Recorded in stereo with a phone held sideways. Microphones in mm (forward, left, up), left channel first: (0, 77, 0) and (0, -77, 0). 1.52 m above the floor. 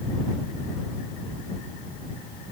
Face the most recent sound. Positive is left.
No sound to turn to.